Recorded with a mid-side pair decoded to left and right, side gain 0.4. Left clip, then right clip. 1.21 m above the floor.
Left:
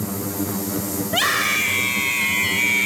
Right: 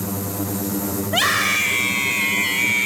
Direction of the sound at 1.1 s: 10° right.